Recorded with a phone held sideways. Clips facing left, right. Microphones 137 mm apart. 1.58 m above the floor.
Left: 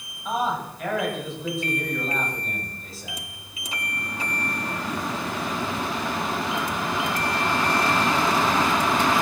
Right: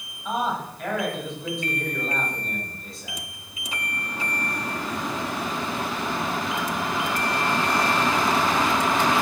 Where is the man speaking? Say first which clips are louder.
Left 1 dB; centre (ahead or behind), 9 m.